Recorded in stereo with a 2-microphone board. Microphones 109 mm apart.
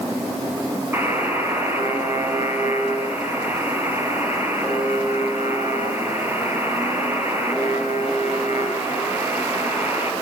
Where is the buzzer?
20° right (ahead or behind), 6.5 m.